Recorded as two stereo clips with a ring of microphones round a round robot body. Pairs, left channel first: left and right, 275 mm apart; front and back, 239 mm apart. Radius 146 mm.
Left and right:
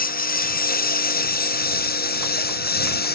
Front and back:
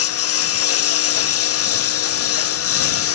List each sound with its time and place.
0.0 s a lawn mower: 30° left